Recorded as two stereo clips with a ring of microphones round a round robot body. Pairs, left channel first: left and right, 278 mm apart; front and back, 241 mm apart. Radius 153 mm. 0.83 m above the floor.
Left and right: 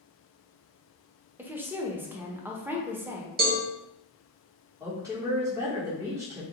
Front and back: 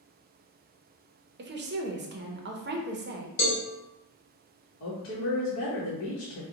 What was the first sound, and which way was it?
A woman speaking, 170° right.